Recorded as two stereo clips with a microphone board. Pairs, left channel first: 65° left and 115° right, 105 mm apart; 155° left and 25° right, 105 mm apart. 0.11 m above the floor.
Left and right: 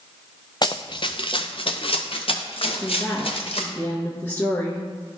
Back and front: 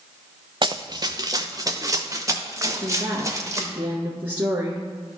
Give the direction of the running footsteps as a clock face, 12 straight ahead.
11 o'clock.